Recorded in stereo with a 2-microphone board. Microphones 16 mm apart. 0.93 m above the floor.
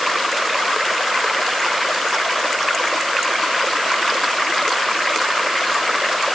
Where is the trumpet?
I don't hear a trumpet.